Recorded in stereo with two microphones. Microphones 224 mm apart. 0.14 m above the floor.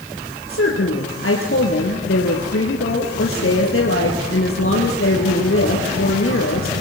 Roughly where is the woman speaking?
Left.